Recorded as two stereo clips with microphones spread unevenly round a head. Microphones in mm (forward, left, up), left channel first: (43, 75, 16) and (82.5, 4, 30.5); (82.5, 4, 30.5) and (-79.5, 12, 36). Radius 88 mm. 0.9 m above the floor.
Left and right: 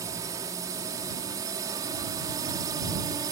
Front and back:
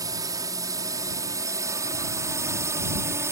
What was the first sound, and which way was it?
A drone, 115° right.